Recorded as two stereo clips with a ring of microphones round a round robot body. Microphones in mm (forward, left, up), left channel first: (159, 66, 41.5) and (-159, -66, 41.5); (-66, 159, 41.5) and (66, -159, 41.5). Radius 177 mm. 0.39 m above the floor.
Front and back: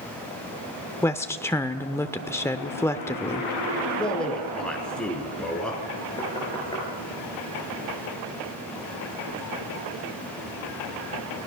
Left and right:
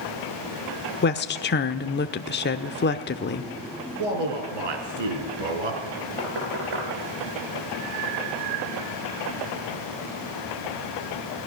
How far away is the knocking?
About 8 m.